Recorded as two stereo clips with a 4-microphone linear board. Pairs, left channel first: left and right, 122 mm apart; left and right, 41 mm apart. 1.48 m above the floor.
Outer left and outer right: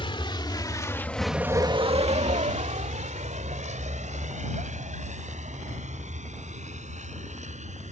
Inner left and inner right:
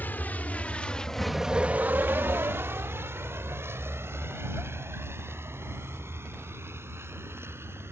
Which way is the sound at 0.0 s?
45° left (ahead or behind).